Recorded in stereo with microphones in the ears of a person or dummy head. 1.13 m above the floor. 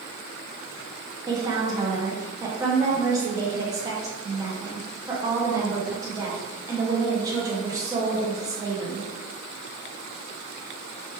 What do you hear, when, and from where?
1.3 s a woman speaking: 15° right (ahead or behind), 0.6 m